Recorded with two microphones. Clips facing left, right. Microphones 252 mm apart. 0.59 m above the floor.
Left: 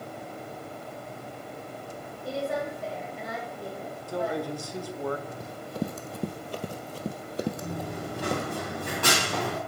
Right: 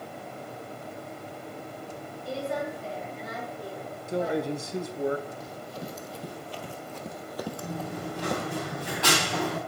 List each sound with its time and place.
2.2 s a woman speaking: 70° left (ahead or behind), 3.5 m; by 4.4 s 65° left (ahead or behind), 3.5 m
4.1 s a man speaking: 20° right (ahead or behind), 0.6 m
5.4 s running footsteps: 60° left (ahead or behind), 1.1 m; by 8.5 s 5° left (ahead or behind), 1.3 m
7.6 s running footsteps: 50° left (ahead or behind), 6 m; by 9.6 s 55° left (ahead or behind), 5 m